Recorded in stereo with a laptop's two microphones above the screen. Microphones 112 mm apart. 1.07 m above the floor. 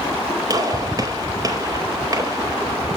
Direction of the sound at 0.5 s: 35° right (ahead or behind).